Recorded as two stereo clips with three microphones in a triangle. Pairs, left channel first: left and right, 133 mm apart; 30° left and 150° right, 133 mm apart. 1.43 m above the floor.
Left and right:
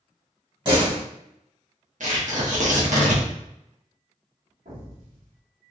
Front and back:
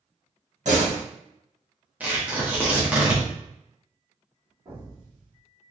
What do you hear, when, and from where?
0.7 s a door slam: 140° right, 1.2 m
2.0 s tearing paper: 70° right, 1.0 m
4.7 s an explosion: 95° right, 1.4 m